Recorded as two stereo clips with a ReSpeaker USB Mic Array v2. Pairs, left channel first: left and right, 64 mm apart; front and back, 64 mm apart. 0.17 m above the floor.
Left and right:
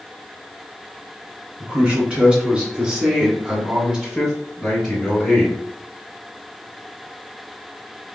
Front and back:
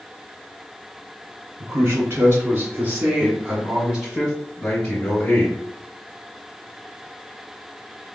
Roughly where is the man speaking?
Behind.